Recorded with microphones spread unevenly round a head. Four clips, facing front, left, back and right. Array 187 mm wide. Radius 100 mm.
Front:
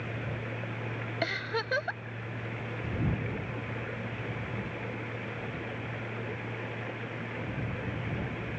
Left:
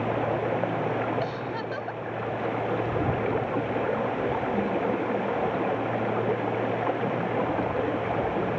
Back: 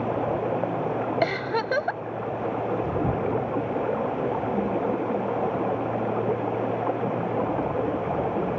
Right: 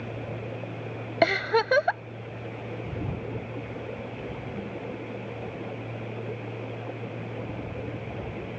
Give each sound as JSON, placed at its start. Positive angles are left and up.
{"t": 0.0, "sound": "running water", "azimuth_deg": 145}
{"t": 1.2, "sound": "a giggle", "azimuth_deg": -105}